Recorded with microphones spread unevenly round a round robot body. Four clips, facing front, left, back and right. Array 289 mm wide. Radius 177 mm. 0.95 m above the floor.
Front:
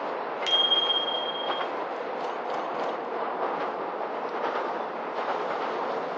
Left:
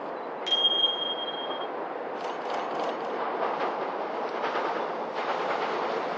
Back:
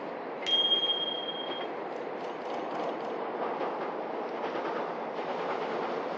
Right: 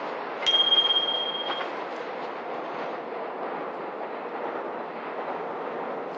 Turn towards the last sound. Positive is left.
turn(degrees=-75)